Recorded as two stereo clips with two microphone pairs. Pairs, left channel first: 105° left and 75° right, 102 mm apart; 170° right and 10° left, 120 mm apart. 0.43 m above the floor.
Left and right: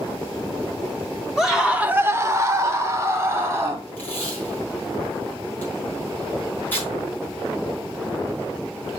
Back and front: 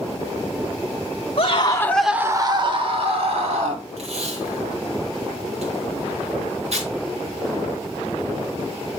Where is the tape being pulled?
30° left, 4 m.